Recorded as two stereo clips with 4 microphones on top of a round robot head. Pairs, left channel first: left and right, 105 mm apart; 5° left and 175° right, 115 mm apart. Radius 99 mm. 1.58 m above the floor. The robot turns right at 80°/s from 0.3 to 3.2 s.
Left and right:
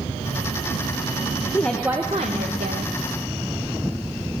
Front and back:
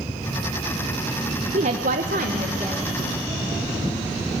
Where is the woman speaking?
165° left, 1.1 m; by 2.9 s 90° right, 1.1 m.